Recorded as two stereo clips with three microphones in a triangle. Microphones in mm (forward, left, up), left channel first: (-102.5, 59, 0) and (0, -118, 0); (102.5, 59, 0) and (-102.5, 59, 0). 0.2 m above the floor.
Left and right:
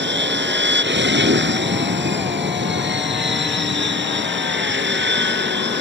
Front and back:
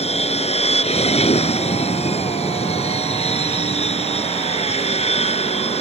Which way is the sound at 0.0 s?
55° right.